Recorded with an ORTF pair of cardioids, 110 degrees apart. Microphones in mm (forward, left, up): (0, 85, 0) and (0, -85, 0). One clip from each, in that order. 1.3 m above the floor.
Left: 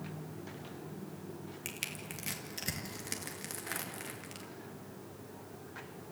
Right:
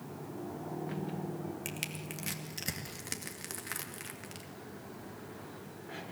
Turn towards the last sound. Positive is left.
turn(degrees=-5)